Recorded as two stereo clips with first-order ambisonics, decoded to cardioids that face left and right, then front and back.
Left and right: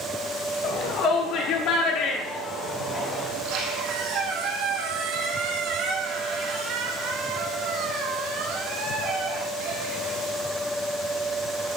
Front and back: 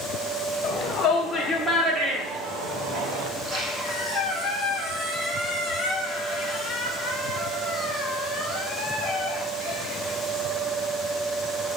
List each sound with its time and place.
0.6 s a shout: 50° left, 1.8 m; by 3.3 s 175° left, 2 m
3.3 s a squeak: 115° right, 4.5 m